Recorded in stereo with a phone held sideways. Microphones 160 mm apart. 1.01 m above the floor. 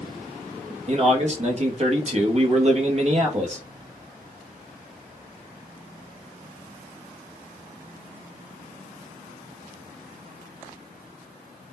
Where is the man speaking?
45° right (ahead or behind), 0.7 m.